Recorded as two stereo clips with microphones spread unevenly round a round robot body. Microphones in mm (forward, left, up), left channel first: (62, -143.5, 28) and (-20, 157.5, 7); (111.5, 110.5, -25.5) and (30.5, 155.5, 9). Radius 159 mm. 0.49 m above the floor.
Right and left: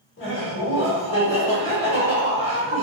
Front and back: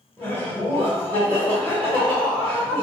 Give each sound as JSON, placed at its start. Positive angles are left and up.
{"t": 0.2, "sound": "laughter", "azimuth_deg": -115, "distance_m": 1.5}